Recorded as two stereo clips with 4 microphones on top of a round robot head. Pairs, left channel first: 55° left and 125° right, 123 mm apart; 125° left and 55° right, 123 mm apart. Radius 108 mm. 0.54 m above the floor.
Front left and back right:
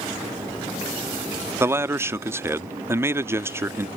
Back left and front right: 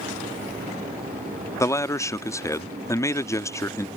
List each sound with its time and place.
1.6 s a man speaking: 175° left